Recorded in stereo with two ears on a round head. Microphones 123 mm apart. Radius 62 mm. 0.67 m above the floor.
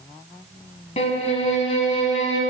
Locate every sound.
1.0 s a violin: 50° left (ahead or behind), 1.3 m